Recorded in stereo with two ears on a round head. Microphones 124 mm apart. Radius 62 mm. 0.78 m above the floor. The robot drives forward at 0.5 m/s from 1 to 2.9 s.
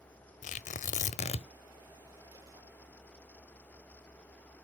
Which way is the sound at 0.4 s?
55° left (ahead or behind).